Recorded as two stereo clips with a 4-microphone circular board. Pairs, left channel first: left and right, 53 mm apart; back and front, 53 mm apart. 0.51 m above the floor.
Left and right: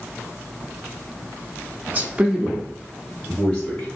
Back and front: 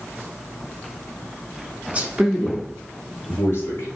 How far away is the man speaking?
About 0.8 m.